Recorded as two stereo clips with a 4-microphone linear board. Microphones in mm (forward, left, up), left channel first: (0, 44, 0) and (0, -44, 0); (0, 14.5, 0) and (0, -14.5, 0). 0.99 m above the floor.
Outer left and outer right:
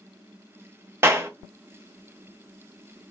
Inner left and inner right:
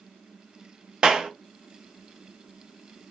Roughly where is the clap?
Right.